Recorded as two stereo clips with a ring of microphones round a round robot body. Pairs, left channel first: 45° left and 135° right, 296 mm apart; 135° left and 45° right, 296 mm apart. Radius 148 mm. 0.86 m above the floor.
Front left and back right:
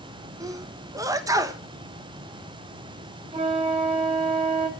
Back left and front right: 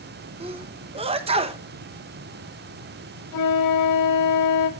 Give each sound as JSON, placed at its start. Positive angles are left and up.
{"t": 0.4, "sound": "a sneeze", "azimuth_deg": -75, "distance_m": 0.9}
{"t": 3.3, "sound": "a flute", "azimuth_deg": 155, "distance_m": 1.9}